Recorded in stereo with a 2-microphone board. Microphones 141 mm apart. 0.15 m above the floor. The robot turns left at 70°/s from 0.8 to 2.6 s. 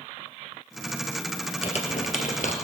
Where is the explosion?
I don't hear an explosion.